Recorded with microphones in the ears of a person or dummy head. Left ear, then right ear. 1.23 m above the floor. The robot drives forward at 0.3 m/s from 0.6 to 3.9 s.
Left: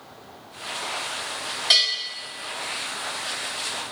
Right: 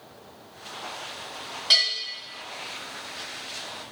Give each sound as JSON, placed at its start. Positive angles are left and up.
{"t": 1.7, "sound": "a bell", "side_deg": 20, "distance_m": 1.3}